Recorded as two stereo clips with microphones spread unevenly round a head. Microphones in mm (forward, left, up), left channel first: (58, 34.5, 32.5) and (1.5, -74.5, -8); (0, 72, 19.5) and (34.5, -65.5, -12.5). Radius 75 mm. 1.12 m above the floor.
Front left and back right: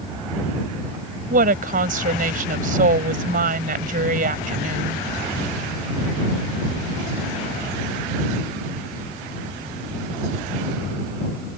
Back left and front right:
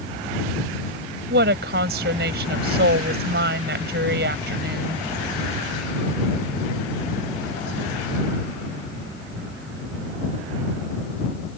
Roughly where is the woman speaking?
Right.